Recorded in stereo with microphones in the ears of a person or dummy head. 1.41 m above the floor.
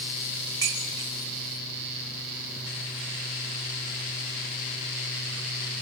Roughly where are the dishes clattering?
Centre.